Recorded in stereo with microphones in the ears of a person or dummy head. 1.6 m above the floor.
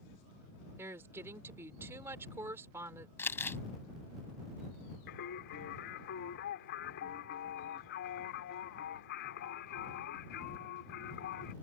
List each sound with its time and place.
0.8 s a woman speaking: 10° right (ahead or behind)
3.2 s crumpling: 15° left (ahead or behind)
5.1 s singing: 65° left (ahead or behind)